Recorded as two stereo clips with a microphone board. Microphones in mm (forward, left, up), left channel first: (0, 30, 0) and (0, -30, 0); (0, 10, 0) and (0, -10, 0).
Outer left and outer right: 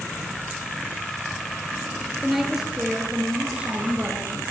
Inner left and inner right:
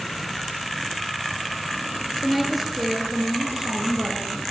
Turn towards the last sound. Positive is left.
turn(degrees=-35)  # may be behind; listen again after turning